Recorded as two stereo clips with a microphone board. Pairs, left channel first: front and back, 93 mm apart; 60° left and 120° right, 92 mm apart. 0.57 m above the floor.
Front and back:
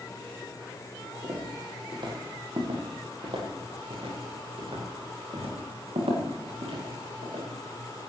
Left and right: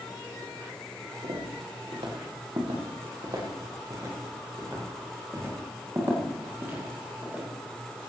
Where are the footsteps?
140° right, 8 m; by 7.4 s 165° left, 10.5 m.